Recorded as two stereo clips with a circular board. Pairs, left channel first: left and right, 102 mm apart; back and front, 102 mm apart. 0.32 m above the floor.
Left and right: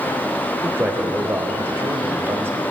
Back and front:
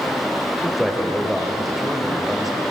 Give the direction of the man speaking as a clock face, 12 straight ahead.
3 o'clock.